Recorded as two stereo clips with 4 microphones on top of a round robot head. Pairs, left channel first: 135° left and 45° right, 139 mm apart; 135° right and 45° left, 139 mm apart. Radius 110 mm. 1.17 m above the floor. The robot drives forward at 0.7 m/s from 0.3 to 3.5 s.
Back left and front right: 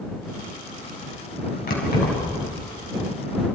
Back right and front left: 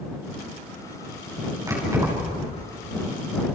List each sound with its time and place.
1.7 s keys jangling: 110° left, 6.5 m; by 2.4 s 115° left, 6.5 m